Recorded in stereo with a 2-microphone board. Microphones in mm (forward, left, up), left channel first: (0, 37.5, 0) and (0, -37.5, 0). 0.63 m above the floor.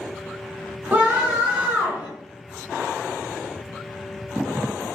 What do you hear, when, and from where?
0.9 s a scream: 25° right (ahead or behind), 0.9 m